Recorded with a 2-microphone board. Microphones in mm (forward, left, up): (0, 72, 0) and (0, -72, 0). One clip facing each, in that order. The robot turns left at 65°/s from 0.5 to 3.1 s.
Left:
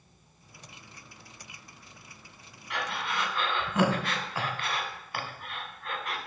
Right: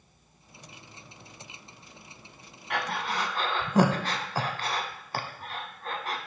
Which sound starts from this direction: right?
Breathing, at 2.7 s.